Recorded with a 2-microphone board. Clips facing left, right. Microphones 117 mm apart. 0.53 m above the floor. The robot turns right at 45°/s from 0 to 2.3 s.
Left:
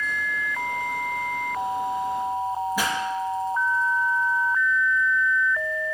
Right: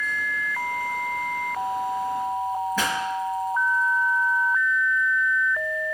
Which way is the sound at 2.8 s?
10° left (ahead or behind).